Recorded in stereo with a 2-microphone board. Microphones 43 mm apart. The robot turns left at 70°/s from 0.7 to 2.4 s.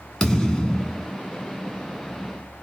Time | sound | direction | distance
0.2 | a thud | 15° left (ahead or behind) | 0.7 m